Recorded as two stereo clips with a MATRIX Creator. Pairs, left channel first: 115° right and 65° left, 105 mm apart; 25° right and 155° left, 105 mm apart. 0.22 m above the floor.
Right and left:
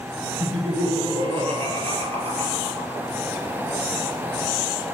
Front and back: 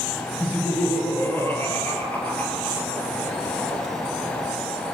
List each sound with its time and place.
0.4 s laughter: 45° left, 7 m; by 3.0 s 50° left, 5.5 m